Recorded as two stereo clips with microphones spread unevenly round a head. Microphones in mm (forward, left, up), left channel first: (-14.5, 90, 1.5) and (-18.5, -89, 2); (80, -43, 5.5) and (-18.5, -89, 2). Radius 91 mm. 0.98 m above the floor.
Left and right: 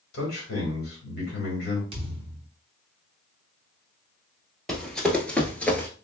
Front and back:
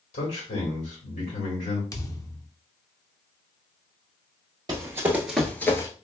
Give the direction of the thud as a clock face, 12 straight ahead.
1 o'clock.